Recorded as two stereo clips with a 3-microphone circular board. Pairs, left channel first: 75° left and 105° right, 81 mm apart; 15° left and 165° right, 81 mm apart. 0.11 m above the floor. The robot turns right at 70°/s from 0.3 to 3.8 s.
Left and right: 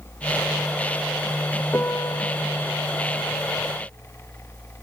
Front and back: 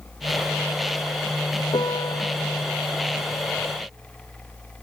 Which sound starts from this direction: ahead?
A piano, at 1.7 s.